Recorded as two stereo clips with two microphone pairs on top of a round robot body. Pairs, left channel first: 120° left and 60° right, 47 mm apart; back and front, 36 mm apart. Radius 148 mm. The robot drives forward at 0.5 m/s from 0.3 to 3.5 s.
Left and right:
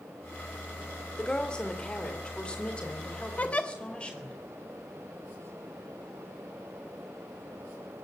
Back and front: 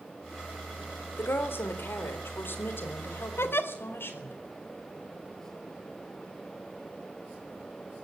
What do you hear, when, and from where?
1.2 s a woman speaking: 165° right, 4 m; by 4.4 s 170° right, 5 m
3.4 s a giggle: 175° right, 1.4 m